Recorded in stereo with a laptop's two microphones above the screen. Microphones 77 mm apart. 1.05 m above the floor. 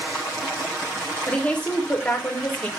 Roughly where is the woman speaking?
Centre.